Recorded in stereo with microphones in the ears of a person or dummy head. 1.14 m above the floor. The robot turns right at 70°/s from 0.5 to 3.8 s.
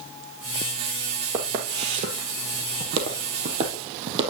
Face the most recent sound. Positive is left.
turn(degrees=-30)  # may be behind; listen again after turning